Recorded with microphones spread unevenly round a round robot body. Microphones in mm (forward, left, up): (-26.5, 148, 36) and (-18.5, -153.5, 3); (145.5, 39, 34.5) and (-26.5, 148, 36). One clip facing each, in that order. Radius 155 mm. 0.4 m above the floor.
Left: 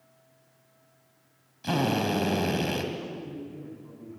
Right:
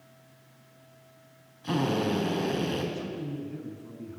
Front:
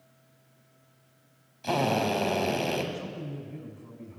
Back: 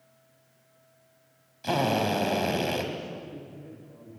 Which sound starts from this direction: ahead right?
A man speaking, at 2.9 s.